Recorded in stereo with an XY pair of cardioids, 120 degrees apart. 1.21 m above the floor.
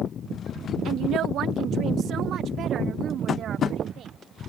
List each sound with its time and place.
0.8 s a woman speaking: 65° right; by 4.2 s 55° right
3.3 s tapping: 45° left